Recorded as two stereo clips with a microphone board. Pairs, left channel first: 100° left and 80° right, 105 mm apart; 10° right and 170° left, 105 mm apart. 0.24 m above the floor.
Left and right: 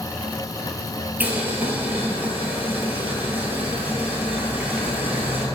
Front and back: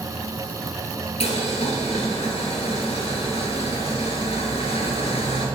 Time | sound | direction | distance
1.2 | boiling | 5° right | 0.8 m